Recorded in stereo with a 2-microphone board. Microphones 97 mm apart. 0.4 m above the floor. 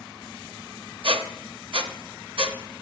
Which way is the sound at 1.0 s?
60° right (ahead or behind).